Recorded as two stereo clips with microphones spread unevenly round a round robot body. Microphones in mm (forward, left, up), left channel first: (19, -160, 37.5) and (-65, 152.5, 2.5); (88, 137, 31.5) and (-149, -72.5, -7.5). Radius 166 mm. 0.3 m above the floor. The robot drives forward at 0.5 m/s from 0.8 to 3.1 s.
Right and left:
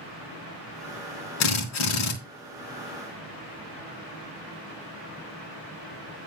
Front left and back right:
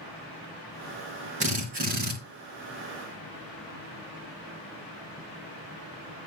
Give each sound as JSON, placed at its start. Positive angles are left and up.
{"t": 1.4, "sound": "a drill", "azimuth_deg": -70, "distance_m": 3.0}